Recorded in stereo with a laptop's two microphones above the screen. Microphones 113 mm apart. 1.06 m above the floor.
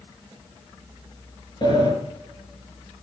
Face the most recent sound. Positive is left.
turn(degrees=45)  # may be behind; listen again after turning